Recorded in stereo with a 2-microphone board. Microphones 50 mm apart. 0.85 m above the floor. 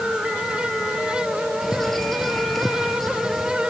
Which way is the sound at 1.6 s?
5° left (ahead or behind).